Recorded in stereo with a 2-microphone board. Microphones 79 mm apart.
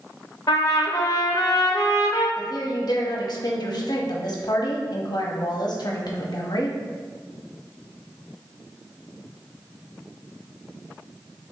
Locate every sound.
0.5 s a trumpet: 55° left (ahead or behind), 0.8 m
2.4 s a woman speaking: 60° left (ahead or behind), 0.9 m